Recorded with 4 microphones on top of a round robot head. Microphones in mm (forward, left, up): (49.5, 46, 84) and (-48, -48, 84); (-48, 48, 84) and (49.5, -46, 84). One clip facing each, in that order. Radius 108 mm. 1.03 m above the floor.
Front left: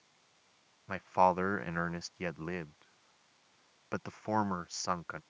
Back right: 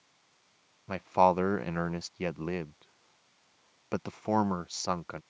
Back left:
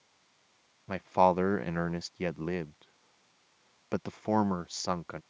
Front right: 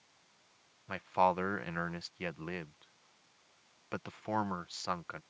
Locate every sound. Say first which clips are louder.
0.9 s a man speaking: back right 4 dB, back left 5 dB; 170° left